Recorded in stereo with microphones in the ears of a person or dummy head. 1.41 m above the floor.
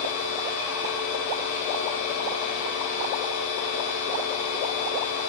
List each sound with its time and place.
0.0 s a machine running: 40° left (ahead or behind), 0.9 m